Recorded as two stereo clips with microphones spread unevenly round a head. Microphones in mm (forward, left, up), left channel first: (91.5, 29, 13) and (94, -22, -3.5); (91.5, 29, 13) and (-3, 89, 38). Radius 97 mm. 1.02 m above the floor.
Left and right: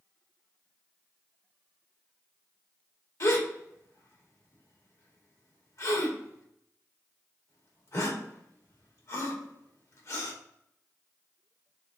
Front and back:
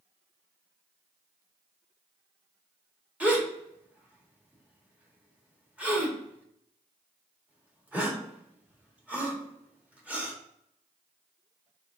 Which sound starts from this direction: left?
A gasp, at 3.2 s.